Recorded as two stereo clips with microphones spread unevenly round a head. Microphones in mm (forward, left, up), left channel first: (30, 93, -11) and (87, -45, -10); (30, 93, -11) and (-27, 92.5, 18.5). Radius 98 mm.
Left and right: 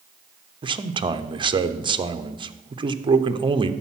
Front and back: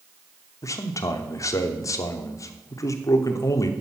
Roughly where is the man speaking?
Ahead.